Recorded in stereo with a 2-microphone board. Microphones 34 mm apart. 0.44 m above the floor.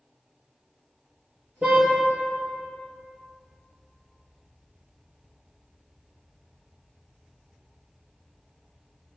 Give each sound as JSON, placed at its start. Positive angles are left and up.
{"t": 1.6, "sound": "a car horn", "side_deg": -30, "distance_m": 3.5}